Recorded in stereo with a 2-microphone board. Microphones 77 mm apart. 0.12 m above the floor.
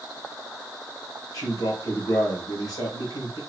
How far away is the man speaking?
About 2.5 m.